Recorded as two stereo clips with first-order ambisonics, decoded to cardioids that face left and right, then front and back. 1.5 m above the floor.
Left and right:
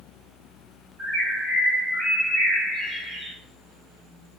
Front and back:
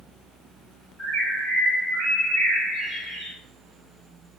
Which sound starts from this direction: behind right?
A bird, at 1.0 s.